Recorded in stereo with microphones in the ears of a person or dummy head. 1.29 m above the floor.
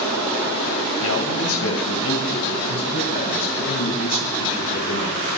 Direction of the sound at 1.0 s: 75° left (ahead or behind).